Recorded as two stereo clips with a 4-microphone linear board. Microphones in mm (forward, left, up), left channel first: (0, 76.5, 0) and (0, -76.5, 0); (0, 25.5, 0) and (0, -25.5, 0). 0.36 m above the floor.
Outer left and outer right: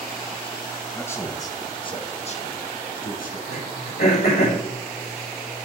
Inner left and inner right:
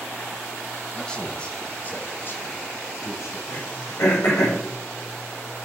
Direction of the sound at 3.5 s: 85° left.